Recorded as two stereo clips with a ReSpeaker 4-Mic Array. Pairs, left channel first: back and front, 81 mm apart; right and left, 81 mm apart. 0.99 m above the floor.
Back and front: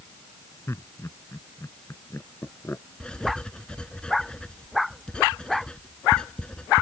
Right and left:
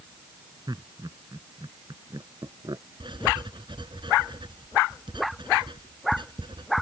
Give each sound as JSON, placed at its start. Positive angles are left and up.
{"t": 0.7, "sound": "laughter", "azimuth_deg": 125}
{"t": 3.0, "sound": "writing", "azimuth_deg": 100}